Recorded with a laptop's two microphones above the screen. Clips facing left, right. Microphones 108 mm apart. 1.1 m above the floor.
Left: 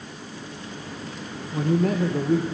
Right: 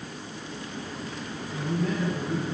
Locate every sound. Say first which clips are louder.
1.5 s a man speaking: left 7 dB; 50° left (ahead or behind), 1.0 m